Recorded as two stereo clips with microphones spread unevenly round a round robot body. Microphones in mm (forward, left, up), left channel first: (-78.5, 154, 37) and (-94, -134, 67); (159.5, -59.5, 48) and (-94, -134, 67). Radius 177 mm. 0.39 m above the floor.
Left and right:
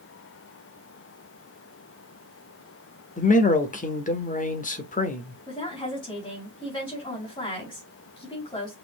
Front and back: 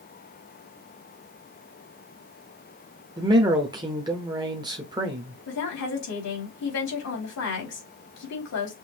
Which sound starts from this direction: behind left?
A man speaking, at 3.2 s.